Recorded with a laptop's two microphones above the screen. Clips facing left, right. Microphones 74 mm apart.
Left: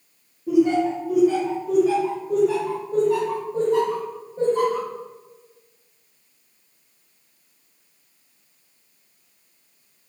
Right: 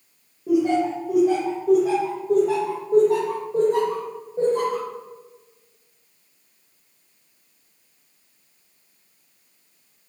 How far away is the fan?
No fan in this recording.